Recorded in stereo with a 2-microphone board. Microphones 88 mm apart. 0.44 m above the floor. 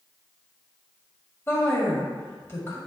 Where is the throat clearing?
No throat clearing in this recording.